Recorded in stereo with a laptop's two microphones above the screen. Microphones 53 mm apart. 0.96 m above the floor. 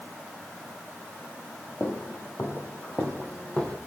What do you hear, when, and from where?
1.8 s footsteps: 55° left (ahead or behind), 2.5 m; by 3.8 s 20° left (ahead or behind), 2.5 m